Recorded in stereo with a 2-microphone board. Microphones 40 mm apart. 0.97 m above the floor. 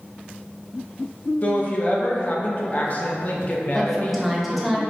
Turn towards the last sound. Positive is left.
turn(degrees=0)  # may be behind; listen again after turning